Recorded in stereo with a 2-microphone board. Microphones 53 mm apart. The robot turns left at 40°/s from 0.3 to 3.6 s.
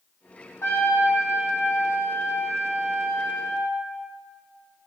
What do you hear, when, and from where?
0.6 s a trumpet: 120° left, 3 m; by 3.7 s straight ahead, 3 m